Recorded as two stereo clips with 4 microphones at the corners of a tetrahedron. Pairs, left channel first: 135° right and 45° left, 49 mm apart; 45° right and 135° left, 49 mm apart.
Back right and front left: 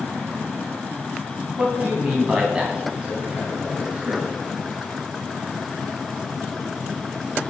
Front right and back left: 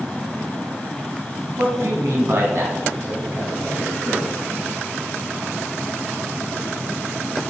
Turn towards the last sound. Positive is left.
turn(degrees=110)